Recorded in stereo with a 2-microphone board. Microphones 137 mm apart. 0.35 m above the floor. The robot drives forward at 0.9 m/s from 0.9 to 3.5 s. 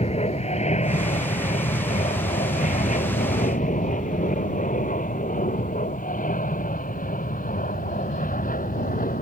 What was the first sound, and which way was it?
An aircraft, 50° left (ahead or behind).